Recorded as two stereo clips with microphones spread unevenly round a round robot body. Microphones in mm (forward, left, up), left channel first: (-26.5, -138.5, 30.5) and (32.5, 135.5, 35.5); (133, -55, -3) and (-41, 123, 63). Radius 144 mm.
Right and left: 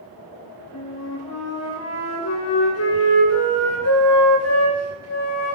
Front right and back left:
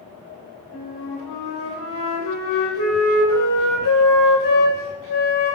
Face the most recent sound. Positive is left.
turn(degrees=-70)